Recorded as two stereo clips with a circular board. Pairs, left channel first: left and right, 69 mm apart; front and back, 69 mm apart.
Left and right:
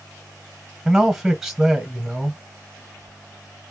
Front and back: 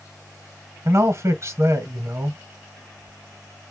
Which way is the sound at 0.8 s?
175° right.